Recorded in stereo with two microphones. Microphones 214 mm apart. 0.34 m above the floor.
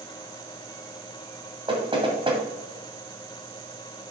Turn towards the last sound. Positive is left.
turn(degrees=-25)  # may be behind; listen again after turning